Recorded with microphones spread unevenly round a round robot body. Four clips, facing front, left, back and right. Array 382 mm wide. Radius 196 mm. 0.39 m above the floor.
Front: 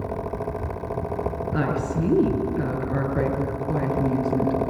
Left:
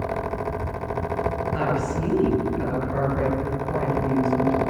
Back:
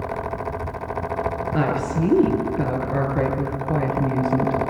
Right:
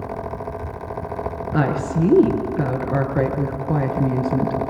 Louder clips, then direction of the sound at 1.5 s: Right 3 dB, back 2 dB; 90° right.